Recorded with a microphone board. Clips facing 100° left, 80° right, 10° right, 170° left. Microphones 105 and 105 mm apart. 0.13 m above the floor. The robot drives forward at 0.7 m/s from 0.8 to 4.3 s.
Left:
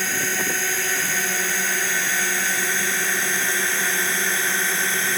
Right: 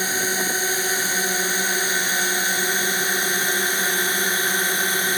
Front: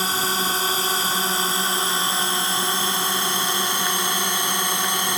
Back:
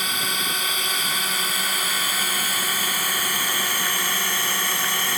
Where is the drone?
20° right; by 5.2 s 35° right.